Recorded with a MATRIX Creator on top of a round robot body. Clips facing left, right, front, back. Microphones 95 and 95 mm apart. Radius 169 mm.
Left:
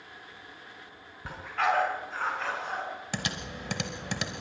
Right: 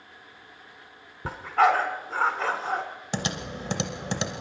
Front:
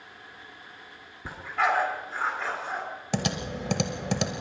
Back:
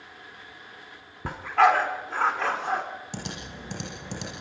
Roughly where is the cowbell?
No cowbell in this recording.